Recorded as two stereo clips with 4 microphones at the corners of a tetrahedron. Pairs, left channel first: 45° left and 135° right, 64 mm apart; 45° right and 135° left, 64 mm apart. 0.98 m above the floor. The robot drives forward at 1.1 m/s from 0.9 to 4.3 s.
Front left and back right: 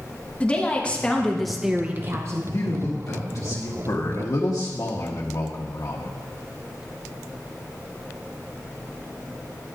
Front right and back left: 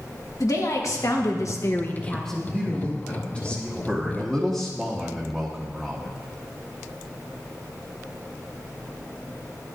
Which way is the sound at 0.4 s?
25° right.